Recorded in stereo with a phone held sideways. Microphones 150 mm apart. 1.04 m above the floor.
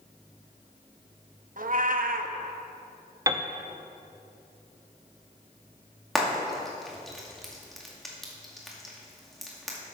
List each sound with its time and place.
1.6 s a cat meowing: 65° right (ahead or behind), 0.6 m
3.3 s a piano: 20° right (ahead or behind), 0.6 m
6.2 s frying: centre (ahead or behind), 2 m